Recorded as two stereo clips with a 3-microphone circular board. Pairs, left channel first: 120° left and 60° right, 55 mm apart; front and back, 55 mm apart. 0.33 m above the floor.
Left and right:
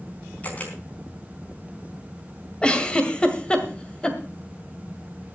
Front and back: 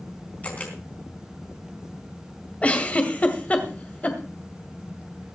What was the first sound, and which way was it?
A camera shutter, 60° left.